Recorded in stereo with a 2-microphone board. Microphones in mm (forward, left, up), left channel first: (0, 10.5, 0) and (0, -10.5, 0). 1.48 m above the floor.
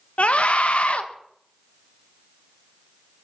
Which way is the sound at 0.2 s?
85° left.